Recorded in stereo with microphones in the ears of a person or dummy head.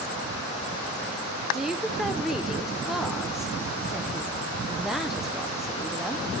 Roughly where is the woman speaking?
Centre.